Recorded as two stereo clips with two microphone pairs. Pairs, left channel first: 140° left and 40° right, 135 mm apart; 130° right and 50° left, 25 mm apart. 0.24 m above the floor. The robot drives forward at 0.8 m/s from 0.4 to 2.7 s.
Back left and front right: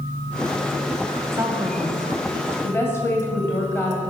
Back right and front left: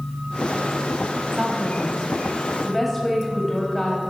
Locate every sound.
1.3 s a woman speaking: 5° left, 1.4 m; by 4.0 s 170° left, 1.3 m